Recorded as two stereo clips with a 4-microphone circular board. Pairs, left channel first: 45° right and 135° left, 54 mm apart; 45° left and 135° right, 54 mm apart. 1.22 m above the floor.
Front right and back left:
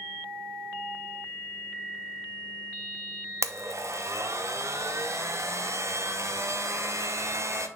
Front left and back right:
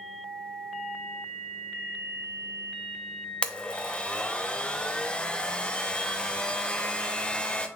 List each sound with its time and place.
3.4 s a blender: 115° left, 0.7 m